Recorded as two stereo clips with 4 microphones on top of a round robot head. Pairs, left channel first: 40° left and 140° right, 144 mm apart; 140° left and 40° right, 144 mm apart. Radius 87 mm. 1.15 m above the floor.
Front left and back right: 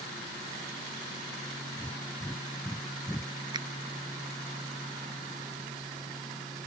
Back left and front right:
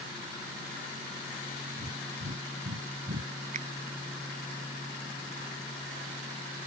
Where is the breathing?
40° right.